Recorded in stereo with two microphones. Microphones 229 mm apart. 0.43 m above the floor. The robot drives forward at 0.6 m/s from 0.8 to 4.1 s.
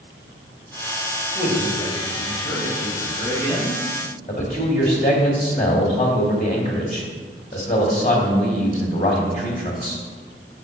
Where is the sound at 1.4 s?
30° left (ahead or behind), 1.7 m; by 3.8 s 20° left (ahead or behind), 3 m.